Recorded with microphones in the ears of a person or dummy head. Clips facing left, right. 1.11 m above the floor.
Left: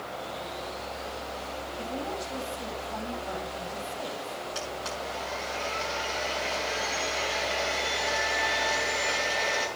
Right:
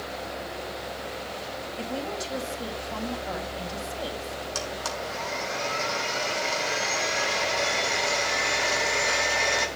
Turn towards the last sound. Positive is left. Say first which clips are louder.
# right 2 dB
turn(degrees=-55)  # may be behind; listen again after turning